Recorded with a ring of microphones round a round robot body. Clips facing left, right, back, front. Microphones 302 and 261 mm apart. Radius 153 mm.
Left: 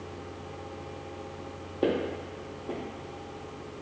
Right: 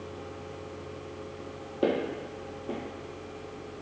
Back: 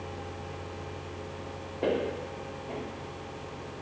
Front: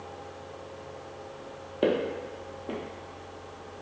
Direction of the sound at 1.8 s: 10° right.